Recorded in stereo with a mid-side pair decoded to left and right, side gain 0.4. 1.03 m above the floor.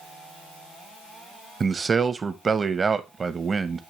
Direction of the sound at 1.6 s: 40° right.